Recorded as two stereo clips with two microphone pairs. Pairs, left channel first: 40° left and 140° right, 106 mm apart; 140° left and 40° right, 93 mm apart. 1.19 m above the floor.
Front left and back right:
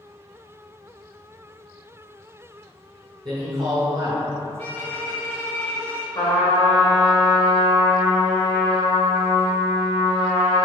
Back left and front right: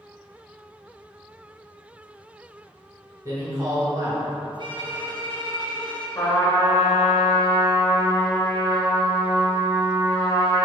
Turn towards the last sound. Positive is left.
turn(degrees=80)